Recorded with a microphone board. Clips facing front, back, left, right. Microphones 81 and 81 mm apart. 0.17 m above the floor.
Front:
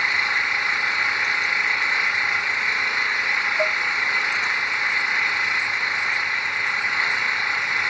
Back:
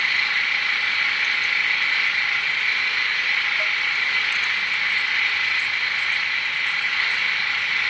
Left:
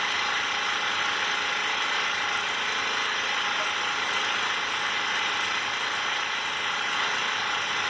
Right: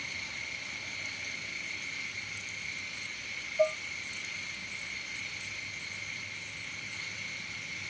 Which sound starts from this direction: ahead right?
Dishes clattering, at 3.6 s.